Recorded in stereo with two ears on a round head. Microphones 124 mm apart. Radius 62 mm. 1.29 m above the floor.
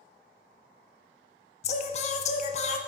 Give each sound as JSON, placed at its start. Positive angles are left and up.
{"t": 1.6, "sound": "singing", "side_deg": 50, "distance_m": 0.5}